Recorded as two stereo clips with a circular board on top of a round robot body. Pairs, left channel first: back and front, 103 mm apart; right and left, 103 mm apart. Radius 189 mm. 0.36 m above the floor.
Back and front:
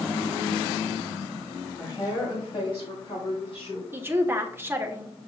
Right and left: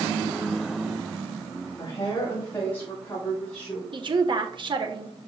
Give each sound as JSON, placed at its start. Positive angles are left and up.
{"t": 1.8, "sound": "a woman speaking", "azimuth_deg": -140, "distance_m": 2.5}
{"t": 3.9, "sound": "a woman speaking", "azimuth_deg": 65, "distance_m": 1.4}